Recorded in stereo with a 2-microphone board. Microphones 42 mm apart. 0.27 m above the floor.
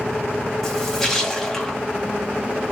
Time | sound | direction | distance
0.6 | a splash | 15° left (ahead or behind) | 1.7 m